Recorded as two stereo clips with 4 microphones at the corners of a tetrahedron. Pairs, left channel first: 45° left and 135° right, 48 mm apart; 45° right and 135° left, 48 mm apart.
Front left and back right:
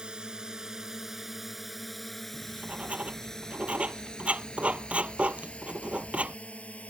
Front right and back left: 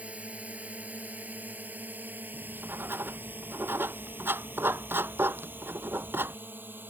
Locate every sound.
0.0 s a drone: 170° left; by 6.9 s 100° left
2.3 s writing: 165° left